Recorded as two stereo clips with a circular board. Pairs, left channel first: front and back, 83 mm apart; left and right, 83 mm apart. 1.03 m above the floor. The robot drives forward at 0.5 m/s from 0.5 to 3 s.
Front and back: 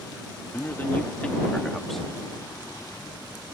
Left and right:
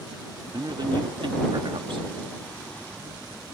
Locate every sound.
0.5 s a man speaking: 60° right; by 2.1 s 90° right